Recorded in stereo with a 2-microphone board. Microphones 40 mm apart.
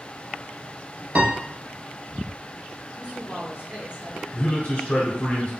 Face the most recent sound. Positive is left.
turn(degrees=30)  # may be behind; listen again after turning